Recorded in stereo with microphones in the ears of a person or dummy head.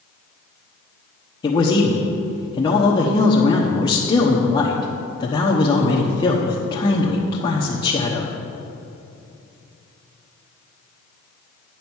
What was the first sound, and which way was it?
A man speaking, 25° left (ahead or behind).